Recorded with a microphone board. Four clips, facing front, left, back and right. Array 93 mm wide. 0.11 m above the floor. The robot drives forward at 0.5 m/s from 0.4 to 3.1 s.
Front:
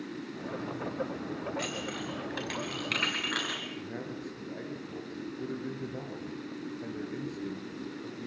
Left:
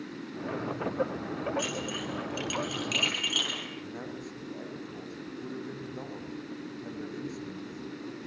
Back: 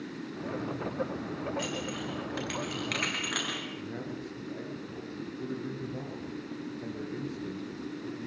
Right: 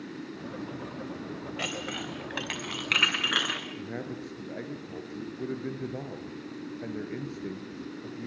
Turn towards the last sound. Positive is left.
turn(degrees=-95)